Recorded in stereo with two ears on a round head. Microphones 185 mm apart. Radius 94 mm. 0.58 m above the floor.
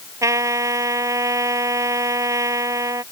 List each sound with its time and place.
0.2 s a trumpet: 15° right (ahead or behind)